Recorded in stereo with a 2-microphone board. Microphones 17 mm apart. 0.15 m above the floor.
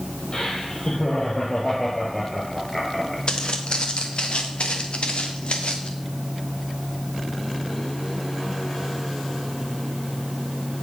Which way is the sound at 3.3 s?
50° left (ahead or behind).